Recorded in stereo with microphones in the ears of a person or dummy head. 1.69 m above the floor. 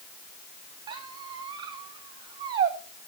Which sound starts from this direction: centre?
A squeak, at 0.9 s.